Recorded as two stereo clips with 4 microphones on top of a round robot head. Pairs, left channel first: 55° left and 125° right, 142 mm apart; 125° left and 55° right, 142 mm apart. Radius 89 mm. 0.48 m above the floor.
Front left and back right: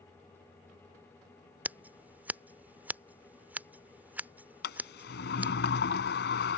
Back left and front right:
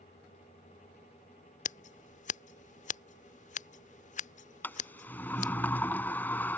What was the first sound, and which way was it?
Scissors, 155° left.